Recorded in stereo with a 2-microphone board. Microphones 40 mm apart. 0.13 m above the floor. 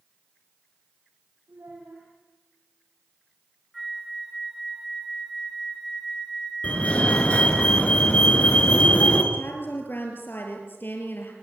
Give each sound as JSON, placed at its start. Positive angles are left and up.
{"t": 1.5, "sound": "a child speaking", "side_deg": -80, "distance_m": 5.5}
{"t": 3.7, "sound": "a flute", "side_deg": 0, "distance_m": 3.0}
{"t": 6.6, "sound": "a fire alarm", "side_deg": 35, "distance_m": 3.5}
{"t": 9.3, "sound": "a woman speaking", "side_deg": 55, "distance_m": 3.5}